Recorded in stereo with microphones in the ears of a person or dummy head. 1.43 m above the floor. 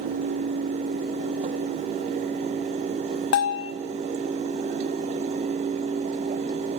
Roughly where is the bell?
Left.